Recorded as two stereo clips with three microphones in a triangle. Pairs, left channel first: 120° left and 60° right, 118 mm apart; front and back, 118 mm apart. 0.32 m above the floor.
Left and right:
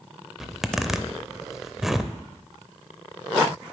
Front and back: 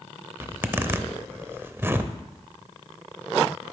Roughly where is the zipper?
Behind right.